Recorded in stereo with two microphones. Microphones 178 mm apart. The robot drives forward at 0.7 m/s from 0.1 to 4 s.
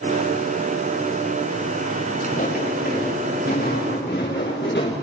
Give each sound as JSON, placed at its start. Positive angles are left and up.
{"t": 2.2, "sound": "footsteps", "side_deg": 45, "distance_m": 7.5}